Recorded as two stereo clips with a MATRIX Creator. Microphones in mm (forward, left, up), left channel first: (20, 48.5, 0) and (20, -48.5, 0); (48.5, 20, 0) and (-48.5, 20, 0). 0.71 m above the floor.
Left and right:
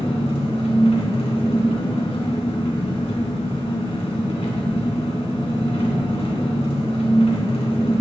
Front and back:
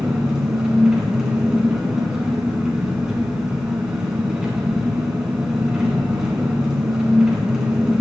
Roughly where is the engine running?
Left.